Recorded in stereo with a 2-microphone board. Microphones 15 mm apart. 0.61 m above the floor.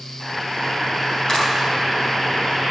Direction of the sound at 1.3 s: 40° left (ahead or behind).